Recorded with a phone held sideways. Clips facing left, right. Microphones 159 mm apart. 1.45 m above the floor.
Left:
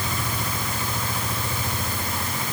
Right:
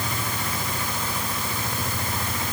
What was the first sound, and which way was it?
Only background noise.